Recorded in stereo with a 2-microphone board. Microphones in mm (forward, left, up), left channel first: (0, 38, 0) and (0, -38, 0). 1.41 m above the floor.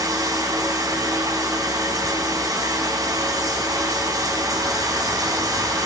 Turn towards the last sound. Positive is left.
turn(degrees=-55)  # may be behind; listen again after turning